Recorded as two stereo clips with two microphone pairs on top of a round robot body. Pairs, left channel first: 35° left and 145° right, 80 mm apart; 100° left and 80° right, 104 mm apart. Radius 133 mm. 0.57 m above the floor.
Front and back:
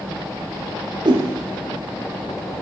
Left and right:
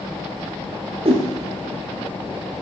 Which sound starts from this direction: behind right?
A whoosh, at 1.1 s.